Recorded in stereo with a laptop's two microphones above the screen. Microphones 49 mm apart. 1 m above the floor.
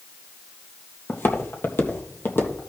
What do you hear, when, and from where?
1.1 s footsteps: 45° left (ahead or behind), 1.4 m